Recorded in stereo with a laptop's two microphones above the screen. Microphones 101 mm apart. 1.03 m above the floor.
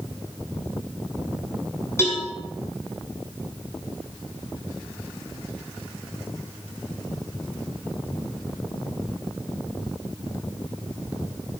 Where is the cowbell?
25° left (ahead or behind), 4.5 m.